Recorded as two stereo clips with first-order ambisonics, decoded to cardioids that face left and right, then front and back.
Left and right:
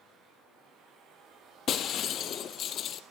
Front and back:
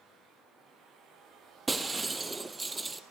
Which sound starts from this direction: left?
Breaking glass, at 1.7 s.